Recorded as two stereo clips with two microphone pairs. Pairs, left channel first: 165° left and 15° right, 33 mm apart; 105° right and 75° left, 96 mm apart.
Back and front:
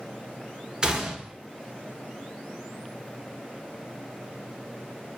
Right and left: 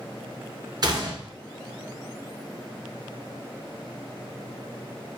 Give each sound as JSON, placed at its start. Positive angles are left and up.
{"t": 0.8, "sound": "a gunshot", "azimuth_deg": 45, "distance_m": 0.5}